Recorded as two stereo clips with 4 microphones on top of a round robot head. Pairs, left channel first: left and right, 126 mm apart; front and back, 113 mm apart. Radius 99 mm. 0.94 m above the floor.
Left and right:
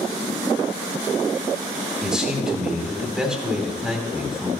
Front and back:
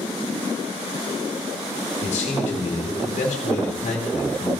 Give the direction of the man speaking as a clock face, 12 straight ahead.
12 o'clock.